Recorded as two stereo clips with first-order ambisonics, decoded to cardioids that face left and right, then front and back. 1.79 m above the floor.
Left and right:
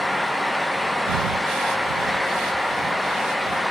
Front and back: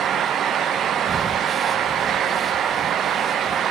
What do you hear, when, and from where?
1.1 s breathing: 105° right